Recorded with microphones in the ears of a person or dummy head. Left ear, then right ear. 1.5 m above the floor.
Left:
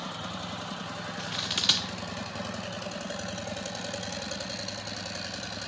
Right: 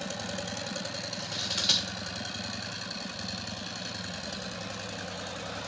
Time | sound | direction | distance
1.2 | scissors | 25° left (ahead or behind) | 1.0 m